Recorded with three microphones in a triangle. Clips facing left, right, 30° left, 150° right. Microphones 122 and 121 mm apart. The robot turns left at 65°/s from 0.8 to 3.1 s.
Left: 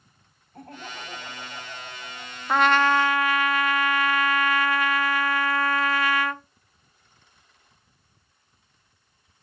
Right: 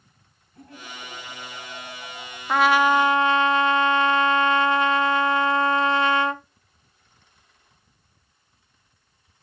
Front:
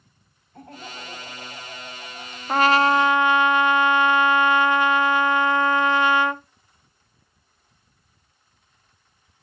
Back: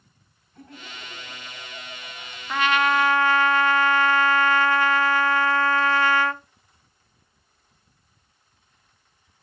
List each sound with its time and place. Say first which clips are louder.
0.5 s laughter: left 2 dB, front 4 dB; 60° left, 3 m; by 2.4 s 40° right, 3 m
2.5 s a trumpet: right 2 dB, front 4 dB; 5° left, 0.5 m; by 6.4 s 35° right, 0.5 m